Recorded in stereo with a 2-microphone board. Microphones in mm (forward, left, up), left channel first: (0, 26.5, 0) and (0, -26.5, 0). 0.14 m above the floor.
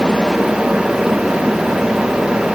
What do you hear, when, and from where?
Only background noise.